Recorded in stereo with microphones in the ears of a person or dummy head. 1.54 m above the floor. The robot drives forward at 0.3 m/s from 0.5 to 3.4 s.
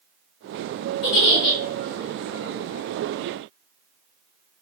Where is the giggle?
55° left (ahead or behind), 1.6 m.